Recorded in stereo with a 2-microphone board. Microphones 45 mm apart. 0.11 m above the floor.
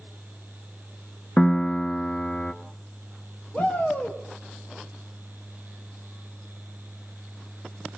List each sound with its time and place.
1.4 s a piano: 25° left (ahead or behind), 0.8 m
3.5 s a shout: 35° left (ahead or behind), 3 m